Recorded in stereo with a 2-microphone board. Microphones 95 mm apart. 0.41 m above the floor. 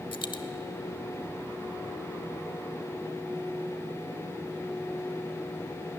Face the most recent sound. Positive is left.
turn(degrees=60)  # may be behind; listen again after turning